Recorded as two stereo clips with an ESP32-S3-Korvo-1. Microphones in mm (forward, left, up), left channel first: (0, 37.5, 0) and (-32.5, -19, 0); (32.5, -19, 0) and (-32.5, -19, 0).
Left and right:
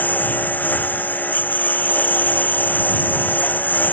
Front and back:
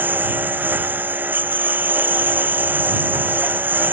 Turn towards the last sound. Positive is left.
turn(degrees=120)